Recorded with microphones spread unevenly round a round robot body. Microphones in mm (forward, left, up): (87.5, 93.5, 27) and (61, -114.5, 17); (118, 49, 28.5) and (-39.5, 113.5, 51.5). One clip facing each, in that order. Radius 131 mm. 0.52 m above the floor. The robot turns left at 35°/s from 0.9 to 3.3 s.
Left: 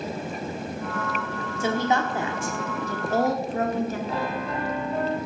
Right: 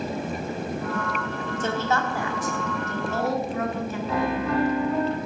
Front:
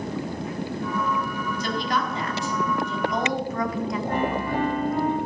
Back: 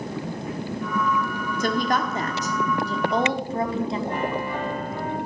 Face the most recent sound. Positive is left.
turn(degrees=-85)